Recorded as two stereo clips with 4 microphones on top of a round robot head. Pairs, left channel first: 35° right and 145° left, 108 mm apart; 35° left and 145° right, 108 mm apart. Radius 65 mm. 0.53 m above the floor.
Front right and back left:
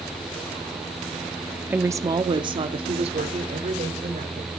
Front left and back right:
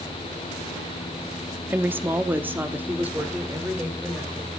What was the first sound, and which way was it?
A woman speaking, straight behind.